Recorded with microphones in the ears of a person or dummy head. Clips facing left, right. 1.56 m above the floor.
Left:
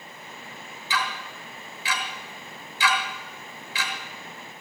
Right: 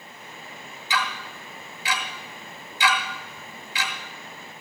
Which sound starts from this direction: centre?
Ticking, at 0.9 s.